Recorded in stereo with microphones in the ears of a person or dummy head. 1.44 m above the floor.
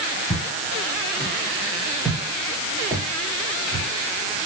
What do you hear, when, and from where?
0.3 s footsteps: 5° left (ahead or behind), 7 m; by 3.9 s 40° right (ahead or behind), 4.5 m